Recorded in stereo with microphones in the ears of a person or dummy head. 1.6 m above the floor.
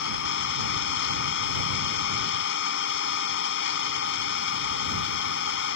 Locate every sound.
0.0 s an engine running: 60° left (ahead or behind)